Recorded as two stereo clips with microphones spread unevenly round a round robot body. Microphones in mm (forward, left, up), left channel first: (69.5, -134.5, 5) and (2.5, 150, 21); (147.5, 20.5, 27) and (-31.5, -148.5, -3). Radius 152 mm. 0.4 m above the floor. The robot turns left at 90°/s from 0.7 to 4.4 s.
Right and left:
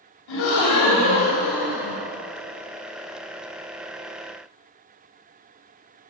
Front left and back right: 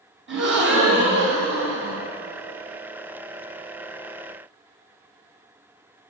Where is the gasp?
95° right, 4 m; by 2.0 s 150° left, 4 m.